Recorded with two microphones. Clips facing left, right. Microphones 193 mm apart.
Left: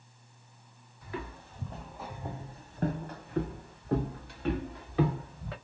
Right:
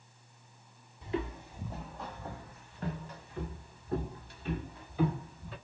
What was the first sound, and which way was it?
Footsteps, 25° right (ahead or behind).